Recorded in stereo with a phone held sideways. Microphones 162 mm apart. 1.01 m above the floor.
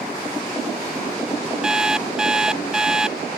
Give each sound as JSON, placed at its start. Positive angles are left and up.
{"t": 1.6, "sound": "an alarm clock", "side_deg": -5}